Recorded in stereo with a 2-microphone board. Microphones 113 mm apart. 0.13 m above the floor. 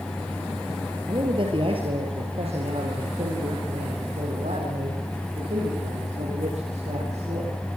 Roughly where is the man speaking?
Right.